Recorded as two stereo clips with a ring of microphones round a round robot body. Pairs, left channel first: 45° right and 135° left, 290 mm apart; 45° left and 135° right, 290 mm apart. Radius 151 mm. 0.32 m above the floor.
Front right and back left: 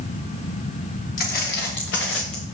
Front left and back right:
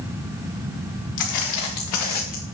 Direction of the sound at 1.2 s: 15° left.